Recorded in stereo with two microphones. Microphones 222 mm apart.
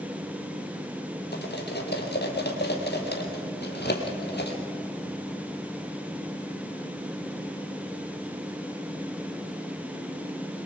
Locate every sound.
1.3 s cutlery clinking: 50° left (ahead or behind), 2.5 m